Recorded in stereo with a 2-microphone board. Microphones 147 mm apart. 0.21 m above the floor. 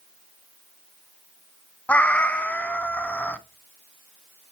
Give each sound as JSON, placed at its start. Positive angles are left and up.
{"t": 1.9, "sound": "a cat meowing", "side_deg": 10, "distance_m": 0.6}